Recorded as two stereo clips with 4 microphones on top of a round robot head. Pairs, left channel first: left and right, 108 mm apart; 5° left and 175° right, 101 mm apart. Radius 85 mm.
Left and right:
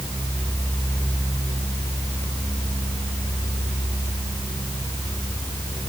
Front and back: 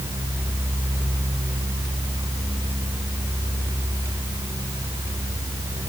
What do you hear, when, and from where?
Only background noise.